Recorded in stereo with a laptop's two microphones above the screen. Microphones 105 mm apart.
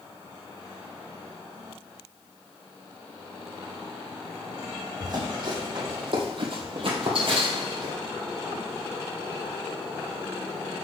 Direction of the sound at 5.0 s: 40° right (ahead or behind).